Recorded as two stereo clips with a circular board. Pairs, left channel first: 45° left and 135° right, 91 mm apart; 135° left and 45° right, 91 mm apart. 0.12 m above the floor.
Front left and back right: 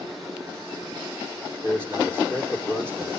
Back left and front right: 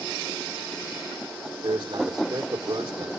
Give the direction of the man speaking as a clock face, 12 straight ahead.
2 o'clock.